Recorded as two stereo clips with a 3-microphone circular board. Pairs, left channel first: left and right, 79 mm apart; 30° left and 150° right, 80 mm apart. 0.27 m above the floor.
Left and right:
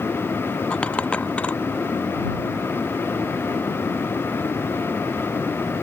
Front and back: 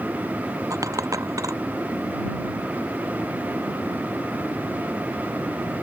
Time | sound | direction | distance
0.7 | a dropped coin | 165° left | ?